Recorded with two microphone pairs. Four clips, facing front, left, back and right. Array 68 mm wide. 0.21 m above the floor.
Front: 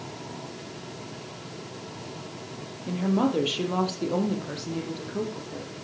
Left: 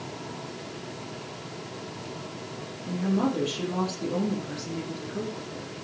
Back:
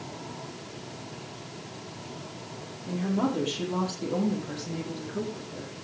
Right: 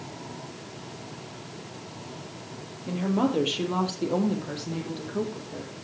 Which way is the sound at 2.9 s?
40° right.